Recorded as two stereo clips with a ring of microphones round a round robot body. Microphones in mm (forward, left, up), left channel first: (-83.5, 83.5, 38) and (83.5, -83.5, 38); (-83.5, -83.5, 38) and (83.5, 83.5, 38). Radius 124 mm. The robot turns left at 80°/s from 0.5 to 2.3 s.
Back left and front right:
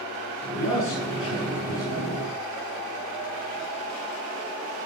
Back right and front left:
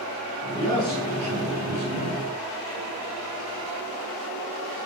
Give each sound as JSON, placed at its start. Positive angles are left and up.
{"t": 0.6, "sound": "a man speaking", "azimuth_deg": 160, "distance_m": 9.0}